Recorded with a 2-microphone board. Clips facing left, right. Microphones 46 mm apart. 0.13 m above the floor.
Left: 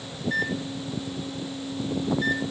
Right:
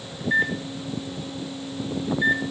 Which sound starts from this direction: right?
A microwave, at 0.2 s.